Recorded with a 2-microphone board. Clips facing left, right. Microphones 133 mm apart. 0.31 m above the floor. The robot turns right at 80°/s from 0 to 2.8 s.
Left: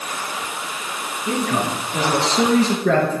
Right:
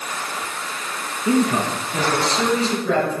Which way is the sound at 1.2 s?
50° right.